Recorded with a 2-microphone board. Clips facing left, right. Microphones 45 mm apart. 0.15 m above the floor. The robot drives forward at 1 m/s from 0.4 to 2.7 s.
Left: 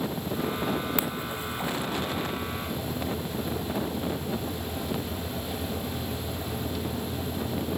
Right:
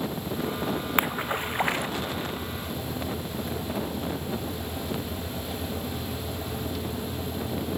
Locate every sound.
1.0 s a splash: 50° right (ahead or behind); by 1.9 s 70° right (ahead or behind)